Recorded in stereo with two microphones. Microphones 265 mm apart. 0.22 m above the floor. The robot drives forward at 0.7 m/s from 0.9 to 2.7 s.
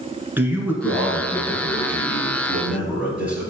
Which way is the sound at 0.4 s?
10° right (ahead or behind).